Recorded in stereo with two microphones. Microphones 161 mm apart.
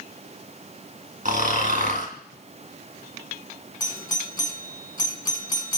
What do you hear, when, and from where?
1.2 s snoring: 55° right (ahead or behind), 3 m
3.8 s a doorbell: 25° left (ahead or behind), 2.5 m